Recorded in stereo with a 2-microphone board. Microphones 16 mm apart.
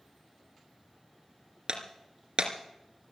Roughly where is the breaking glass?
Right.